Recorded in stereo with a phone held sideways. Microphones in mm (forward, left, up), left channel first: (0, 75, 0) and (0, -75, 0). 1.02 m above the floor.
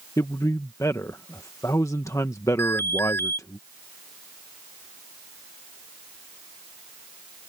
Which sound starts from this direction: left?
A man speaking, at 0.2 s.